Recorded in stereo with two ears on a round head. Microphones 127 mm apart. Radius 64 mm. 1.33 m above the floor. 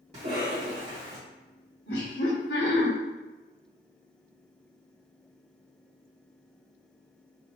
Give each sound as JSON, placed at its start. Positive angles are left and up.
{"t": 0.1, "sound": "a cough", "side_deg": -50, "distance_m": 1.5}
{"t": 1.9, "sound": "laughter", "side_deg": 85, "distance_m": 1.3}